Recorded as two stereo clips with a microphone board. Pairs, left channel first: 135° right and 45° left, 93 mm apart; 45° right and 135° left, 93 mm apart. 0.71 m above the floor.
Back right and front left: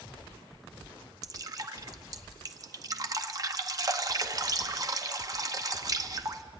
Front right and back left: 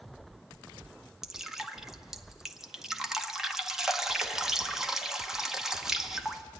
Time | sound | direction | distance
1.2 | dripping | 55° left | 0.9 m